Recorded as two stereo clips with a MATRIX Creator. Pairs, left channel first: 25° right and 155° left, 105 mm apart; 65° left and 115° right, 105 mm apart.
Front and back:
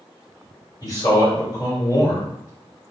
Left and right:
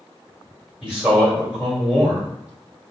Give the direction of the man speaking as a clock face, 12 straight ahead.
1 o'clock.